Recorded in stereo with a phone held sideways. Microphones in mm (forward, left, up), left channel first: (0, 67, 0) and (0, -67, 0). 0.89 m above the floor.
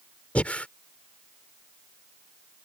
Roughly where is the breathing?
Centre.